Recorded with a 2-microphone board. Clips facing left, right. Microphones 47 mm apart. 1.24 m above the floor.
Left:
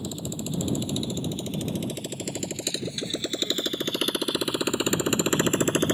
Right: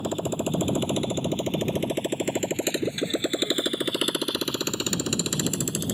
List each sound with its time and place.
0.0 s a motorcycle: 50° right (ahead or behind); by 6.0 s 50° left (ahead or behind)